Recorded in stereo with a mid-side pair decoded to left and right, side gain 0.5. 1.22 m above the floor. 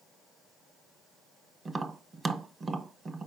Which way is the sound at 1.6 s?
30° right.